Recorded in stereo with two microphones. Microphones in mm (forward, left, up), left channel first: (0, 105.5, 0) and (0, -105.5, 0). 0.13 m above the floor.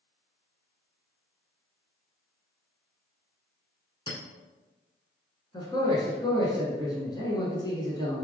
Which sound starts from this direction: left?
A clink, at 4.1 s.